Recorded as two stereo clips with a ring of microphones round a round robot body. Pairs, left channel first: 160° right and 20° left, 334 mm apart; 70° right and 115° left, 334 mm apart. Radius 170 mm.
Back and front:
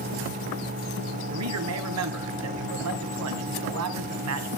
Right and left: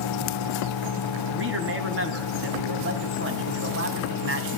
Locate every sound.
1.3 s a man speaking: 60° left, 2.5 m